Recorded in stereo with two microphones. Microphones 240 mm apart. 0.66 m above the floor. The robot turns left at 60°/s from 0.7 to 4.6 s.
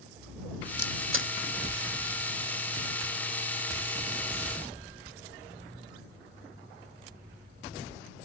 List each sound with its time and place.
0.8 s a camera shutter: 80° right; by 1.3 s 50° right (ahead or behind)